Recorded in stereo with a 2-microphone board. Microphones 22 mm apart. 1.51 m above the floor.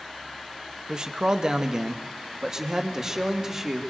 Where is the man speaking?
40° right (ahead or behind), 1.5 m; by 3.8 s 20° right (ahead or behind), 3 m.